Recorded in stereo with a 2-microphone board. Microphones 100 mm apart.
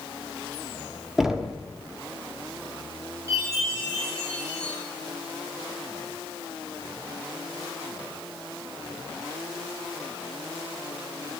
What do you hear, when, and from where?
1.2 s knocking: 5° right (ahead or behind), 0.9 m
3.3 s a chime: 30° right (ahead or behind), 6.5 m